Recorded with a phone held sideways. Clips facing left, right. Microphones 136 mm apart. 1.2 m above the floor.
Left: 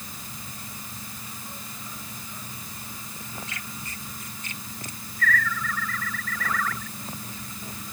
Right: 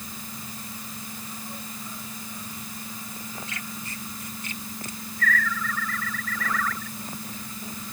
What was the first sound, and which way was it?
Only background noise.